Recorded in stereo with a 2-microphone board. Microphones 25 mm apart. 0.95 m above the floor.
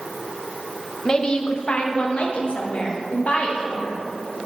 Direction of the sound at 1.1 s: 30° left (ahead or behind).